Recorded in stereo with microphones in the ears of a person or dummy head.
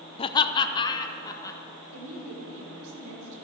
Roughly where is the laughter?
Left.